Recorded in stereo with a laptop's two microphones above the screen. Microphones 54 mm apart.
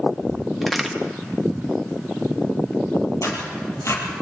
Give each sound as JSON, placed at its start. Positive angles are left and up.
{"t": 0.6, "sound": "a crack", "side_deg": 0, "distance_m": 1.5}
{"t": 3.2, "sound": "tearing paper", "side_deg": 70, "distance_m": 6.0}